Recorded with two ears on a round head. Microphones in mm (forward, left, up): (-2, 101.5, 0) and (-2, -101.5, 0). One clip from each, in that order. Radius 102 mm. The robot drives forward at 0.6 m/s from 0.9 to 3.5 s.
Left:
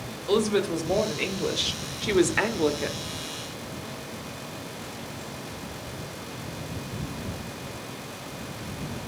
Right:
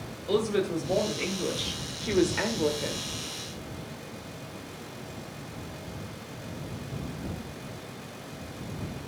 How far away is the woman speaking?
About 1.9 m.